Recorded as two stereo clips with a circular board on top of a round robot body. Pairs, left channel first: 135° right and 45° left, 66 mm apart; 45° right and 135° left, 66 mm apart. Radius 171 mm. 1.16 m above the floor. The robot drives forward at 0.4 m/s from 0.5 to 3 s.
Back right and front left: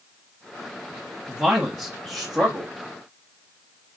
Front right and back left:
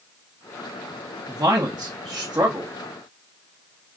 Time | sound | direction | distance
1.3 | a man speaking | 135° left | 1.1 m